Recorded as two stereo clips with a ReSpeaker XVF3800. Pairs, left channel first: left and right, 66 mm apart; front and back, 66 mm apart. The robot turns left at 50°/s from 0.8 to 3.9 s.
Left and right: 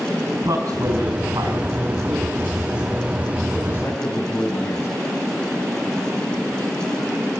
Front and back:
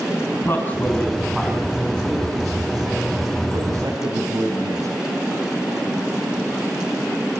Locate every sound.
0.3 s a man speaking: 60° right, 5 m; by 4.9 s 145° left, 5 m